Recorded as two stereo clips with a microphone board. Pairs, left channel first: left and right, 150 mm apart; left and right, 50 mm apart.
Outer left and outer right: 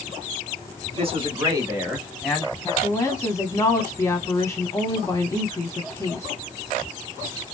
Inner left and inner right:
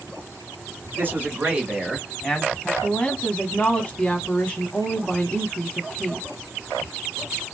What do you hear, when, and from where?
1.0 s a man speaking: 40° right (ahead or behind), 2 m; by 2.7 s 20° left (ahead or behind), 1.7 m
2.8 s a woman speaking: 20° left (ahead or behind), 1.0 m